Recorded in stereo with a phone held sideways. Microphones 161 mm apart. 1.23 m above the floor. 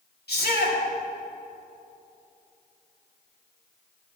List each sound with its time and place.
0.3 s a shout: 85° left, 3.5 m